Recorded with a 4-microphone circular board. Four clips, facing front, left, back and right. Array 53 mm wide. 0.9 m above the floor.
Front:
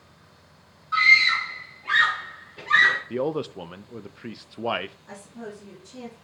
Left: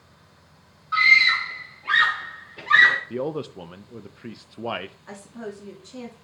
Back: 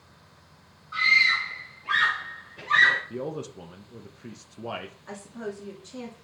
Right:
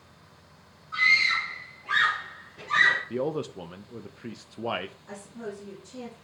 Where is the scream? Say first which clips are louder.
Left 6 dB, front 3 dB; 65° left, 3.5 m; by 3.0 s 80° left, 3 m.